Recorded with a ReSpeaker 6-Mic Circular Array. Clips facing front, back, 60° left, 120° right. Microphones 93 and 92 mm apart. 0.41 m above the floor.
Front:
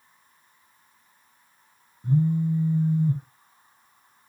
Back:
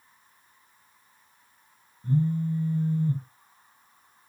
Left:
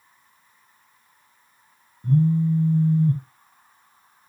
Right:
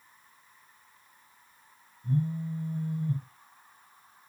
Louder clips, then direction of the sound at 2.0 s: Front 3 dB, left 11 dB; 75° left.